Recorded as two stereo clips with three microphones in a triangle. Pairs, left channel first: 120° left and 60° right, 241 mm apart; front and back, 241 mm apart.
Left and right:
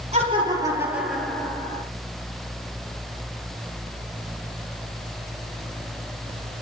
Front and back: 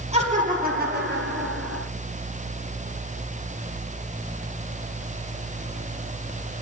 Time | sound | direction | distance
0.1 | laughter | 120° right | 3 m